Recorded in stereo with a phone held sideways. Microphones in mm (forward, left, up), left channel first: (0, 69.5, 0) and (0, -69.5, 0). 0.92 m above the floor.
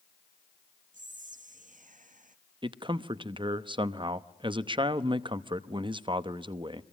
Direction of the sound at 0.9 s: 75° right (ahead or behind).